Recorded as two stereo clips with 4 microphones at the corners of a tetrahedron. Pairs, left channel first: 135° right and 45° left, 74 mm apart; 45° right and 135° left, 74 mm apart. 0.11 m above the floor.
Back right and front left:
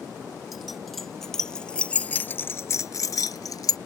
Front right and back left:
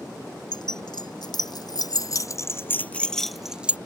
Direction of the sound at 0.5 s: 40° right.